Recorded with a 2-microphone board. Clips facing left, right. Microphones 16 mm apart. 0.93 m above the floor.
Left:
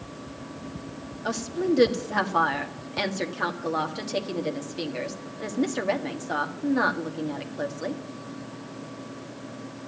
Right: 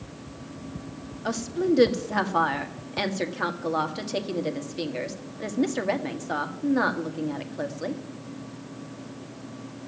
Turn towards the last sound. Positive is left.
turn(degrees=0)  # may be behind; listen again after turning